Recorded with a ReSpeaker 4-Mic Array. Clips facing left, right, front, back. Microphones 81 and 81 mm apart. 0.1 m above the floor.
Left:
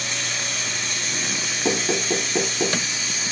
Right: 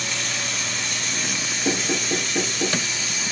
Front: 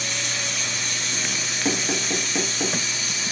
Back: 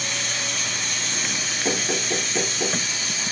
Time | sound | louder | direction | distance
0.0 | running water | even, even | 145° left | 1.7 m
1.6 | knocking | left 2 dB, even | 75° left | 1.2 m